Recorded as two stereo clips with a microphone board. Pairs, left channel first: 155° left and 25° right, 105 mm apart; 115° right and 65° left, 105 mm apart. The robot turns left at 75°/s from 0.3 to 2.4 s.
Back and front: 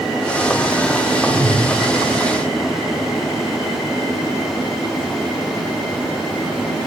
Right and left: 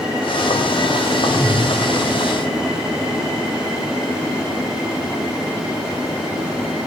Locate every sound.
1.3 s a whoosh: 10° right, 7 m; by 1.7 s 40° right, 7 m